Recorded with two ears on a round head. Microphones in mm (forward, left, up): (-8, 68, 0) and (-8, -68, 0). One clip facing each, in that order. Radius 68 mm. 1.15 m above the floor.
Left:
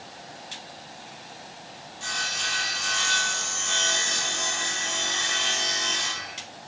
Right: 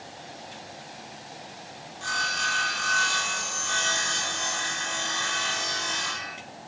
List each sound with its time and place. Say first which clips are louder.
2.0 s sawing: right 4 dB; 25° left (ahead or behind), 3.5 m